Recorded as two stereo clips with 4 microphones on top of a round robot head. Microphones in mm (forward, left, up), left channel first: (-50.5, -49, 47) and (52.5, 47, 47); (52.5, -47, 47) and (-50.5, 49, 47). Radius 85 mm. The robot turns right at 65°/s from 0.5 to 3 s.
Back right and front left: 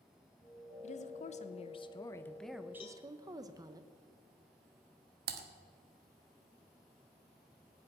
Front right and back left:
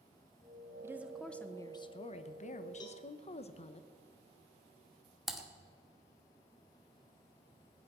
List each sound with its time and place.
0.8 s a woman speaking: 155° right, 1.0 m; by 3.8 s 15° right, 1.0 m
2.8 s a cowbell: 95° right, 0.7 m; by 3.0 s 80° right, 0.7 m
5.3 s typing on a keyboard: 50° left, 1.2 m